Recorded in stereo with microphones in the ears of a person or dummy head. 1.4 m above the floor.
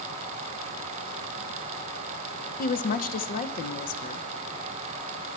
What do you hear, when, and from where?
2.6 s a woman speaking: 45° left (ahead or behind), 1.0 m